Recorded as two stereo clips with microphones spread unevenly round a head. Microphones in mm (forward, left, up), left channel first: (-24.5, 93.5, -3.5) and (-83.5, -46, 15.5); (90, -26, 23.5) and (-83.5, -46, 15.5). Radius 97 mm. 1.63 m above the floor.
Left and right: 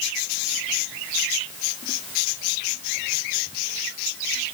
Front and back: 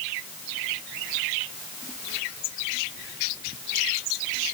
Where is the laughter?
I don't hear laughter.